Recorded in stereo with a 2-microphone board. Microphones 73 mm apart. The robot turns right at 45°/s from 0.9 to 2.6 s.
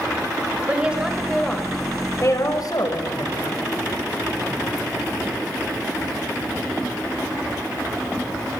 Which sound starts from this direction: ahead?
A woman speaking, at 0.7 s.